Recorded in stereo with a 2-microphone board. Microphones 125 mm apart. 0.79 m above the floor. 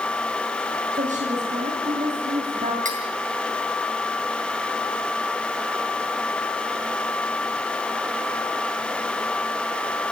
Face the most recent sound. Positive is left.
turn(degrees=-85)